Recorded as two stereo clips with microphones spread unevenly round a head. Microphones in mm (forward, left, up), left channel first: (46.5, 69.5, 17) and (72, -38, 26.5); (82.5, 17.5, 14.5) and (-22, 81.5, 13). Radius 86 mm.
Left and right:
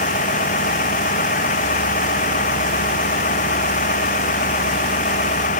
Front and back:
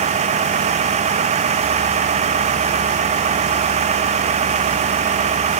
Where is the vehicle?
120° left.